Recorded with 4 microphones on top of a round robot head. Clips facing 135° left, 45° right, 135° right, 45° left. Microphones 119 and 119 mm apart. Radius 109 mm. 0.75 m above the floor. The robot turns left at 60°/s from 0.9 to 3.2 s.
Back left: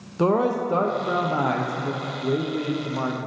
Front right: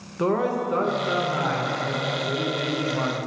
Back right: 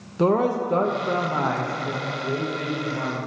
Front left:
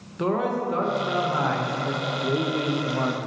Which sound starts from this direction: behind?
A man speaking, at 0.2 s.